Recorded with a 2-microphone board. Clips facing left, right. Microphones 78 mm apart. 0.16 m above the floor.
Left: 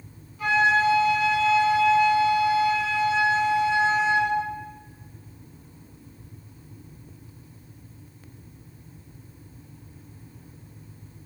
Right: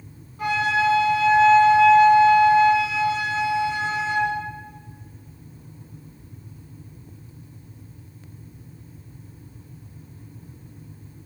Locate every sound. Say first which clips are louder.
0.4 s a flute: left 1 dB; 40° right (ahead or behind), 9 m